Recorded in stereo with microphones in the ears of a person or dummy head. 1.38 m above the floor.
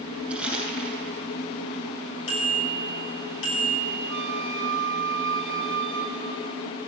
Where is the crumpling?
10° right (ahead or behind), 8 m.